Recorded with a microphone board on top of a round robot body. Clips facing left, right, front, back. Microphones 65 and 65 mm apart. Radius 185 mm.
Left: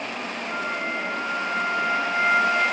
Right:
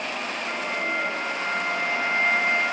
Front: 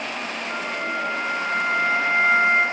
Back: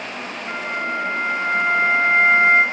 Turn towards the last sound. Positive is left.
turn(degrees=-135)